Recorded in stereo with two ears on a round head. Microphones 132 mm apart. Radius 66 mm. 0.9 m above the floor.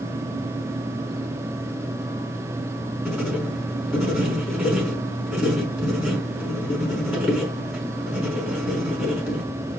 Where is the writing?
5° right (ahead or behind), 5 m.